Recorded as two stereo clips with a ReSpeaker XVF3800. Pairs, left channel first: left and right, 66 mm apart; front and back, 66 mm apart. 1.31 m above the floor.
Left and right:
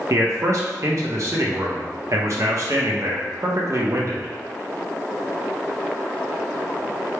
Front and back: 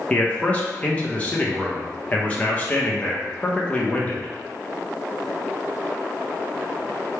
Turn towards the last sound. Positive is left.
turn(degrees=-65)